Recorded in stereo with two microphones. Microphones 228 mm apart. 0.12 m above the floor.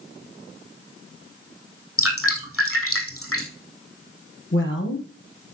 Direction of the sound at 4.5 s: 60° left (ahead or behind).